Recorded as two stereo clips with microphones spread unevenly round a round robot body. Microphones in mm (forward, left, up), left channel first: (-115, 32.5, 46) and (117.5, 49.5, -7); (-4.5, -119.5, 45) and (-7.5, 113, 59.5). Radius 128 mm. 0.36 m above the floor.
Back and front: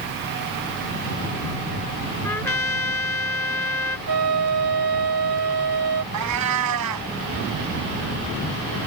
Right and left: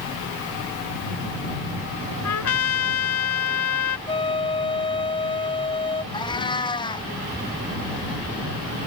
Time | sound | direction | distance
2.2 | a trumpet | 95° right | ?
4.1 | a flute | 20° right | ?
6.1 | a cat meowing | 15° right | ?